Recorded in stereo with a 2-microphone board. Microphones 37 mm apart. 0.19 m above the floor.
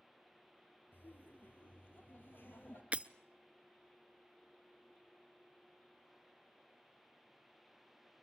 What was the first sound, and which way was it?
Laughter, 75° left (ahead or behind).